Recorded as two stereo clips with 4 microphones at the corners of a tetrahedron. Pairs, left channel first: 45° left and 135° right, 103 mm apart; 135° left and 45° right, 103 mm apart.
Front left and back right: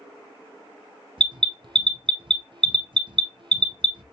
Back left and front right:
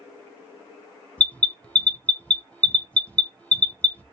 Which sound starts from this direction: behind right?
An alarm, at 1.2 s.